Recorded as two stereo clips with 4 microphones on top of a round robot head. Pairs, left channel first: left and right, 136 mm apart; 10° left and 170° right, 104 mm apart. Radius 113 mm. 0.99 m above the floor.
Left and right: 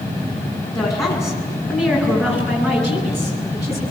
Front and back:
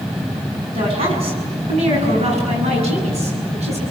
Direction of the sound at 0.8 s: 160° left.